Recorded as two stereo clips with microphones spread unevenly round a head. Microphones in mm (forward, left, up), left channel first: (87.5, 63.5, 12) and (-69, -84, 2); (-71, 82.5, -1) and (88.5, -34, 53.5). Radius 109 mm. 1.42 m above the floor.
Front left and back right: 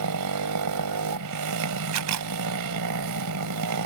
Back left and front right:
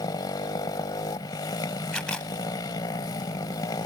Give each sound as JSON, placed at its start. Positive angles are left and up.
{"t": 0.0, "sound": "a motorcycle", "azimuth_deg": -140}
{"t": 1.9, "sound": "a camera shutter", "azimuth_deg": -130}